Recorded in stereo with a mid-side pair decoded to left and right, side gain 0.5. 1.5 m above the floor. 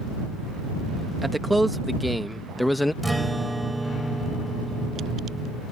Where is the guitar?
10° right.